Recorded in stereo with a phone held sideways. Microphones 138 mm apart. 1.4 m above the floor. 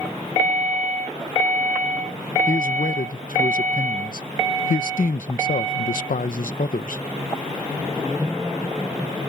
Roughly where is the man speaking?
Left.